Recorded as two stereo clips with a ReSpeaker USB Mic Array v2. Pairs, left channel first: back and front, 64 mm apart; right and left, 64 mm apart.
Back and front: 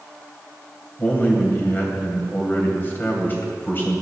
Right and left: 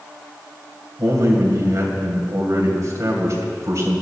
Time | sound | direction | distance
1.0 | a man speaking | 125° left | 3 m